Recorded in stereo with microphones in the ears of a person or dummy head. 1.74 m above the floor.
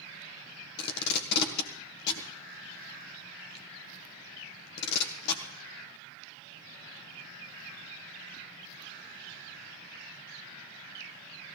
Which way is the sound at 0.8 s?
65° left (ahead or behind).